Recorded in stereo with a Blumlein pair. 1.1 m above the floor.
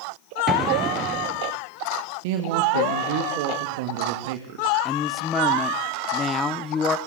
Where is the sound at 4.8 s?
20° left, 0.8 m.